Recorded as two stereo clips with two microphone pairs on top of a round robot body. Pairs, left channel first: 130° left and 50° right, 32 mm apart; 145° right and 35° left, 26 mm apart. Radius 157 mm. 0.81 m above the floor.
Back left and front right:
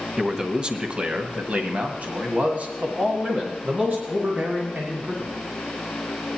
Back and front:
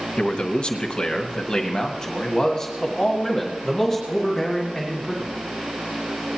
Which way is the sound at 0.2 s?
115° right.